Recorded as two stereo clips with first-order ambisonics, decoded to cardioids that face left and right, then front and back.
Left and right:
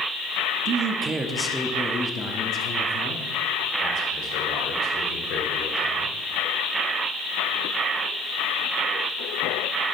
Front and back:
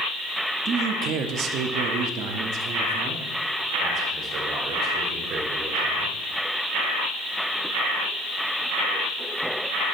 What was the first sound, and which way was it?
A man speaking, 130° right.